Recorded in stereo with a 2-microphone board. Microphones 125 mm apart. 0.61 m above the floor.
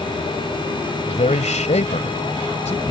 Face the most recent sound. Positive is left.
turn(degrees=65)  # may be behind; listen again after turning